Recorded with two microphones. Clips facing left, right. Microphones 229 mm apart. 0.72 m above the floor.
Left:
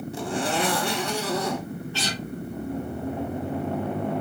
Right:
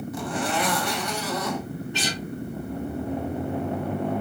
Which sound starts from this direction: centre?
A guitar, at 1.9 s.